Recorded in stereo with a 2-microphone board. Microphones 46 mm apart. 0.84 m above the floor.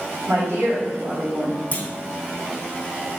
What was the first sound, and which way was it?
A woman speaking, 60° right (ahead or behind).